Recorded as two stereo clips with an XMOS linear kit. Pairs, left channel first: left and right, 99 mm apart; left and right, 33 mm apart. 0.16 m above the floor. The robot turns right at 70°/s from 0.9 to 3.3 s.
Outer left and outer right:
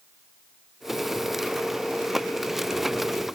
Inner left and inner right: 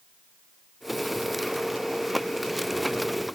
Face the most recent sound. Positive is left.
No sound to turn to.